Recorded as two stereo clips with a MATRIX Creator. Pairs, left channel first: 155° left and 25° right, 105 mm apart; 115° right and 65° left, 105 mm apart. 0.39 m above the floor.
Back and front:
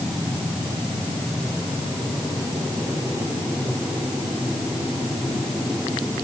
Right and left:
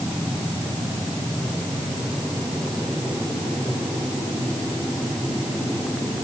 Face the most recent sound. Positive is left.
No sound to turn to.